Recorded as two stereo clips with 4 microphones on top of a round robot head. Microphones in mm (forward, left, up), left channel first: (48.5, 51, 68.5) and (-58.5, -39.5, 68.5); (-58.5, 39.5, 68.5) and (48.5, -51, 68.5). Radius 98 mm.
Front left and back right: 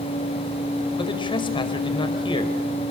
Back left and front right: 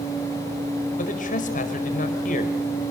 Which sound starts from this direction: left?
A man speaking, at 1.0 s.